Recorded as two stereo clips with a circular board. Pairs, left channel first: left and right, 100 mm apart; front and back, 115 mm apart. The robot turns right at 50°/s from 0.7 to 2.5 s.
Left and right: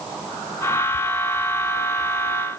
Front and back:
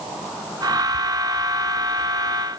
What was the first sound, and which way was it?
Only background noise.